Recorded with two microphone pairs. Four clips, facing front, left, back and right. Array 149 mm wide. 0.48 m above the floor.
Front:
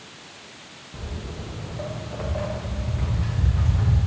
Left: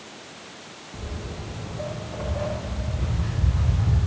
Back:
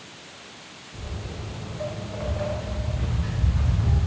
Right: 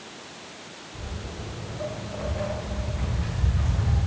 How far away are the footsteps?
About 5.5 m.